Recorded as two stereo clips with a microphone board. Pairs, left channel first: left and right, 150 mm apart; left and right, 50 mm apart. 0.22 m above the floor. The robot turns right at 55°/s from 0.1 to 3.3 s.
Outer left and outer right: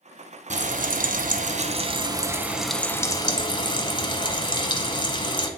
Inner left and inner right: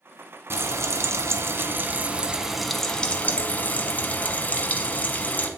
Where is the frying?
120° right, 0.8 m; by 5.5 s 35° left, 0.8 m.